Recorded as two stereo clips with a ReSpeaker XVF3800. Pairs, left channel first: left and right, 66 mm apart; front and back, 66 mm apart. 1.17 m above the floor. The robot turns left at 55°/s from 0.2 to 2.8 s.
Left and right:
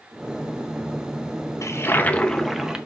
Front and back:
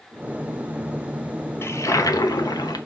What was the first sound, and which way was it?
A toilet flushing, 50° left.